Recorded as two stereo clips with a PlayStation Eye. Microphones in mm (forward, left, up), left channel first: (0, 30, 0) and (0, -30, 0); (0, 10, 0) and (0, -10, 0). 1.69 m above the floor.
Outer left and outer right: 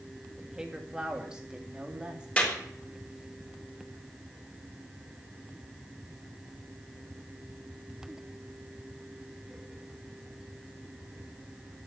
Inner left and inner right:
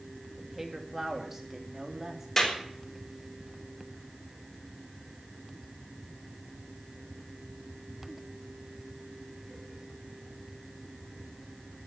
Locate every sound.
0.4 s a woman speaking: 10° right (ahead or behind), 3 m; by 2.3 s 15° right (ahead or behind), 3.5 m
2.4 s a clap: 20° left (ahead or behind), 5 m